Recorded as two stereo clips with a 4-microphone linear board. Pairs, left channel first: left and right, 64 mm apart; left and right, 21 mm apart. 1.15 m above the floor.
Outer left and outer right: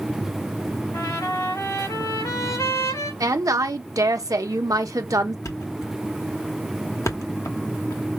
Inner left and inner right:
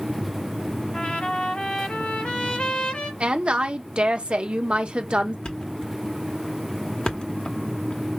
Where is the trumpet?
75° left (ahead or behind), 3 m.